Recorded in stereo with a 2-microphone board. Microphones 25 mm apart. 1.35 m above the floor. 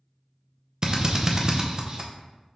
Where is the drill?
35° right (ahead or behind), 0.5 m.